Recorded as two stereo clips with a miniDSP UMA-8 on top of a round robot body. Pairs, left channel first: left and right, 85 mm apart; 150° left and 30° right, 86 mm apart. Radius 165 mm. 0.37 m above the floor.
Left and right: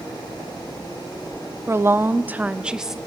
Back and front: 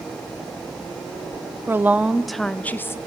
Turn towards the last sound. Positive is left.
turn(degrees=-175)